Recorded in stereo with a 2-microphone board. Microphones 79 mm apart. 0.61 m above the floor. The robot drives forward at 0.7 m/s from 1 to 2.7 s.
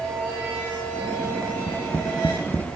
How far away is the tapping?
About 0.9 m.